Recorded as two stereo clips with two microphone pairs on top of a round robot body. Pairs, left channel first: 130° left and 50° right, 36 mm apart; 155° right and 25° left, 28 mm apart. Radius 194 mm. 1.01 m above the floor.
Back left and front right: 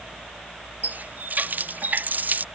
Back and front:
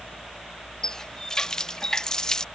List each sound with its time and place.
0.8 s a running tap: 90° right